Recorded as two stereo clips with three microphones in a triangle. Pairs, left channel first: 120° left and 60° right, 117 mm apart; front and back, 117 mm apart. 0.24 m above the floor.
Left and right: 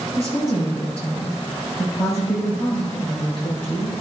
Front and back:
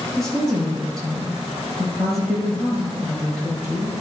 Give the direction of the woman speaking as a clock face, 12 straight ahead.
9 o'clock.